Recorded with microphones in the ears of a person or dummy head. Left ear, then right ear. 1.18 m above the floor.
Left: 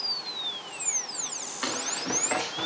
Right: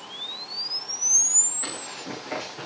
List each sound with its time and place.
1.6 s running footsteps: 50° left (ahead or behind), 5.5 m; by 2.6 s 55° left (ahead or behind), 5.5 m